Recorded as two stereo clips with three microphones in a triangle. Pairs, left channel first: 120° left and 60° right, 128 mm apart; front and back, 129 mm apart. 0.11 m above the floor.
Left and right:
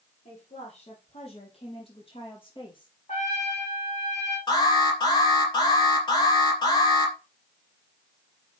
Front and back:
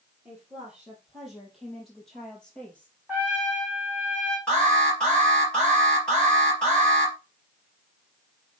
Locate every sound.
0.2 s a woman speaking: 100° left, 3.5 m; by 3.0 s 75° left, 3 m
3.1 s a trumpet: 100° left, 3 m
4.5 s an alarm: 80° left, 3.5 m